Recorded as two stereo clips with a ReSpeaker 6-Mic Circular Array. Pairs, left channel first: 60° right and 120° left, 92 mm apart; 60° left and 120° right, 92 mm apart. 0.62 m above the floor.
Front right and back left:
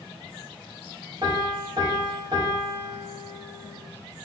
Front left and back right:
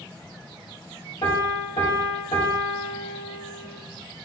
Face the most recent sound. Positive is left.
turn(degrees=80)